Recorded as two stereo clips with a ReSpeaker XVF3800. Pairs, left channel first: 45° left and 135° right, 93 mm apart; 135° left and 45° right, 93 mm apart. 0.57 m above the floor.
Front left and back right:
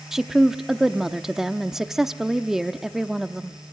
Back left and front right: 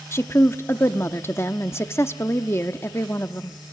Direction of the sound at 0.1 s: 145° left.